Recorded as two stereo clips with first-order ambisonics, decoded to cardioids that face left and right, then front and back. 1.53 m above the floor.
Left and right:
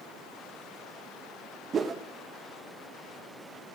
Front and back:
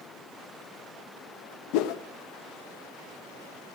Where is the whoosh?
20° right, 0.7 m.